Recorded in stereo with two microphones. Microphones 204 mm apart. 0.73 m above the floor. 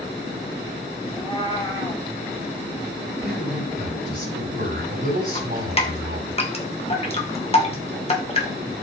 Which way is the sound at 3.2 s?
45° right (ahead or behind).